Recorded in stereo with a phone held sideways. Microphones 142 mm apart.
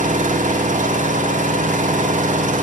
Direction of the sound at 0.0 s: 65° right (ahead or behind).